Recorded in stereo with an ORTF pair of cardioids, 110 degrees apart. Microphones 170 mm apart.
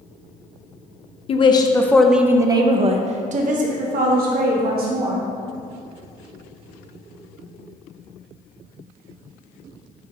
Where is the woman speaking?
35° left, 0.8 m; by 5.2 s 65° right, 2.0 m.